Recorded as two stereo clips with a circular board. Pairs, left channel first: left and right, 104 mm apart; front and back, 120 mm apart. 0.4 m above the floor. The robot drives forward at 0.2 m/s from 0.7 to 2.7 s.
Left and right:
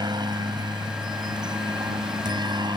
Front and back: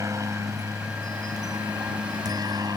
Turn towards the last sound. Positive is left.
turn(degrees=-125)